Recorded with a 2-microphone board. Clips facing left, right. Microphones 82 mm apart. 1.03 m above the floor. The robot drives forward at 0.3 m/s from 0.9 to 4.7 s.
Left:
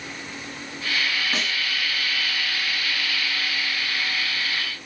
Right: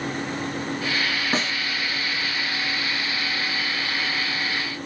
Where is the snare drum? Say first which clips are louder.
Right 3 dB; 35° right (ahead or behind), 0.8 m; by 1.5 s 30° right (ahead or behind), 0.9 m.